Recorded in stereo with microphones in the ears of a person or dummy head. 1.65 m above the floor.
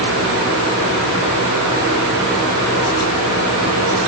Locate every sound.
Only background noise.